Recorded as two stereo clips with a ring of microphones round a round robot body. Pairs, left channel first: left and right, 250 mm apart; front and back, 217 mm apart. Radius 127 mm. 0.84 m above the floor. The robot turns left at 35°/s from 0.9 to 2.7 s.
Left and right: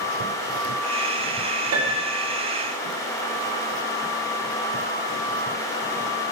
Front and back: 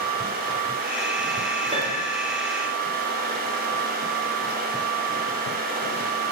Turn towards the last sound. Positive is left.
turn(degrees=-150)